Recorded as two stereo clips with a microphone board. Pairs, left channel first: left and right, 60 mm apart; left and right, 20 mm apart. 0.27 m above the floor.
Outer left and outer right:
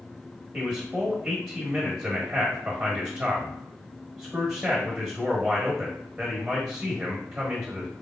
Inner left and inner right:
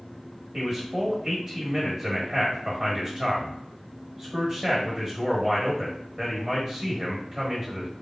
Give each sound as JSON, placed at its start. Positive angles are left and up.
{"t": 0.5, "sound": "a man speaking", "side_deg": -10, "distance_m": 1.1}